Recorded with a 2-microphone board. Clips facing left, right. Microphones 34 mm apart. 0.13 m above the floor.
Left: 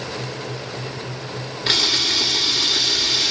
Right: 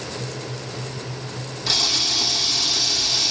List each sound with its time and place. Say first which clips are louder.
1.7 s a camera shutter: left 3 dB; 45° left (ahead or behind), 1.1 m